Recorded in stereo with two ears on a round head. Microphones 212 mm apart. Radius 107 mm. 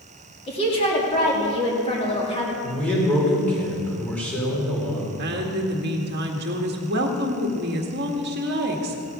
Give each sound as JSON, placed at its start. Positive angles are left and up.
{"t": 0.5, "sound": "a woman speaking", "side_deg": 25, "distance_m": 3.0}
{"t": 2.6, "sound": "a man speaking", "side_deg": 5, "distance_m": 4.0}
{"t": 5.2, "sound": "a woman speaking", "side_deg": -45, "distance_m": 1.7}